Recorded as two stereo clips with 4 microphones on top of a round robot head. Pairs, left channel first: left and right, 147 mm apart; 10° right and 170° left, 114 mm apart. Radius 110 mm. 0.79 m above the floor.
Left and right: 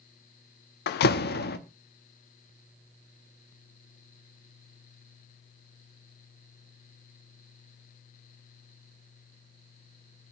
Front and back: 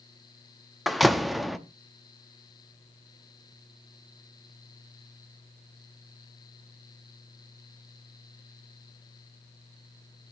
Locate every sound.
0.9 s a door slam: 80° left, 0.7 m